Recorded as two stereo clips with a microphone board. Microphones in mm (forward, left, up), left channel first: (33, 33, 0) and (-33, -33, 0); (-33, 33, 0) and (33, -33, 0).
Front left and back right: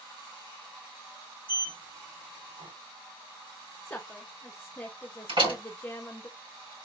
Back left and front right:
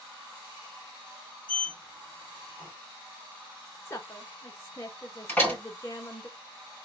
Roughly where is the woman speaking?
Left.